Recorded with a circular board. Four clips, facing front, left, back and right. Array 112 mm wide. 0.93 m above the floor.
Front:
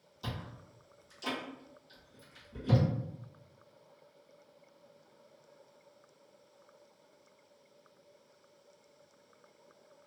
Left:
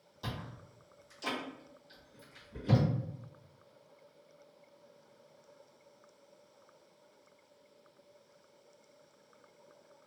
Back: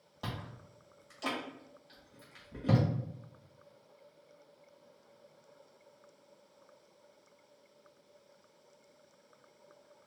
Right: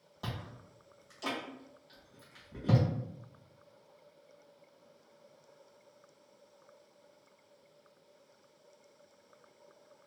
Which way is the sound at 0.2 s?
155° right.